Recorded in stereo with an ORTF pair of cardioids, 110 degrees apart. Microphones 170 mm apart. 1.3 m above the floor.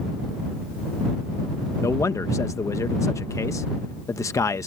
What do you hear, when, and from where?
1.8 s a man speaking: 20° left